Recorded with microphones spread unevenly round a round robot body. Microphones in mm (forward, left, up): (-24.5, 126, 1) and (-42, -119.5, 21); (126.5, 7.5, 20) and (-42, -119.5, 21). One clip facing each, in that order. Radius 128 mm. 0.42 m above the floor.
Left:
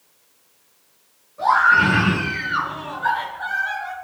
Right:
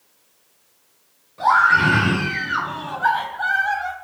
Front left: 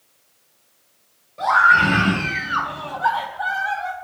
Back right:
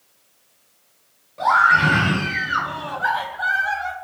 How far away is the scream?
About 4.5 m.